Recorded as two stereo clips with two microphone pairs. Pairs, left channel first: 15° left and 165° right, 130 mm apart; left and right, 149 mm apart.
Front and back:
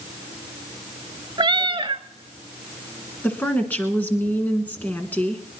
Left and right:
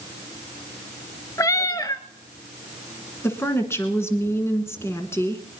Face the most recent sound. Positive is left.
turn(degrees=60)